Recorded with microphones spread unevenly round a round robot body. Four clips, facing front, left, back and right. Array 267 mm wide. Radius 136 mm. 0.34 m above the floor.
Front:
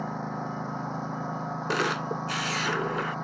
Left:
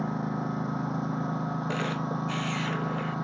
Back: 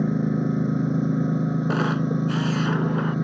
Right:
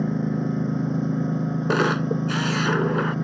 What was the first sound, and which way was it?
A lawn mower, 155° right.